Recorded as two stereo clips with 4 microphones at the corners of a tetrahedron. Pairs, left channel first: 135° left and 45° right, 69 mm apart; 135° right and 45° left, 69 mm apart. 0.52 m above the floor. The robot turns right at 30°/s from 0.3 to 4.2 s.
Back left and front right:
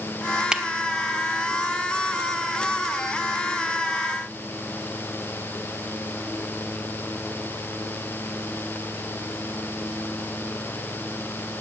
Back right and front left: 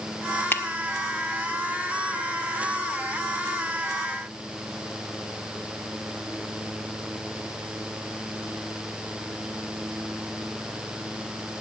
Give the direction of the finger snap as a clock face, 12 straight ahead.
4 o'clock.